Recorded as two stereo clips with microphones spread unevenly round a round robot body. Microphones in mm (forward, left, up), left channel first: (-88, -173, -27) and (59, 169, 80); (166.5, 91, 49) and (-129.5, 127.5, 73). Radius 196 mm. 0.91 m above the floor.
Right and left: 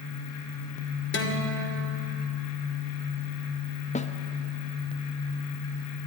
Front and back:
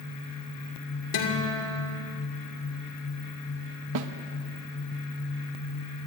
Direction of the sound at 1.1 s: 55° right.